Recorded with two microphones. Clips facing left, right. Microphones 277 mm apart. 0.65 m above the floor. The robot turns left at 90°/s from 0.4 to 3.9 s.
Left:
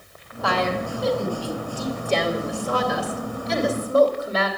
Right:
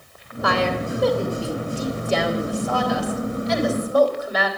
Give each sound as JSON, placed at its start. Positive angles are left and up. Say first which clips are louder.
{"t": 0.4, "sound": "a woman speaking", "louder": "right 2 dB", "side_deg": -15, "distance_m": 2.5}